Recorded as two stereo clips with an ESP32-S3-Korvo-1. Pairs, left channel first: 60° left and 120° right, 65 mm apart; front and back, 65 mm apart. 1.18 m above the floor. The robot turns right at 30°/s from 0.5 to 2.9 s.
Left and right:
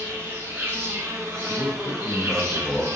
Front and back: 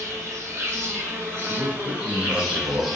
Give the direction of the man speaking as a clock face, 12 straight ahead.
9 o'clock.